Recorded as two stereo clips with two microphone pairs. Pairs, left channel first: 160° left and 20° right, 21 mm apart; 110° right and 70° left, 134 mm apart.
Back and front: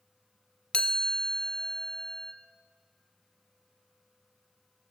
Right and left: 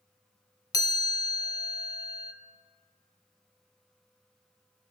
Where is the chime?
170° right, 0.6 m.